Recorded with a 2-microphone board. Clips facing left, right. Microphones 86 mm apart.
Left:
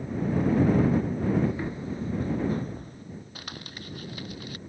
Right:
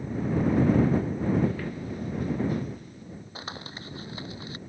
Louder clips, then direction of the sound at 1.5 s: Left 1 dB; 20° left (ahead or behind).